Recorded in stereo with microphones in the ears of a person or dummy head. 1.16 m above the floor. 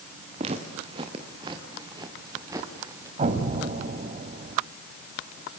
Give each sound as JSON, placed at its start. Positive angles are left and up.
{"t": 0.4, "sound": "footsteps", "side_deg": -35, "distance_m": 5.0}
{"t": 3.2, "sound": "an explosion", "side_deg": -40, "distance_m": 4.0}